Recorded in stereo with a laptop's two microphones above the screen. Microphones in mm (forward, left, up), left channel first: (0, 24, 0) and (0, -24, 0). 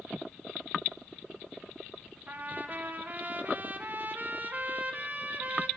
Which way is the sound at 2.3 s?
40° right (ahead or behind).